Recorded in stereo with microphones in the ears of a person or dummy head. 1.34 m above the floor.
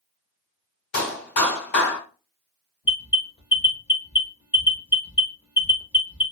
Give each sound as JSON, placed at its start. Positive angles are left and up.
{"t": 0.9, "sound": "a clap", "side_deg": 50, "distance_m": 1.7}
{"t": 2.9, "sound": "an alarm", "side_deg": 15, "distance_m": 0.7}